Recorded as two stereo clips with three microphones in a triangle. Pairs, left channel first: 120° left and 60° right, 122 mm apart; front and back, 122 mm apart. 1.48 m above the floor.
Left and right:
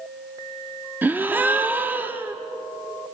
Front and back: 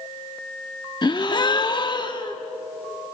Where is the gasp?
5° left, 1.1 m.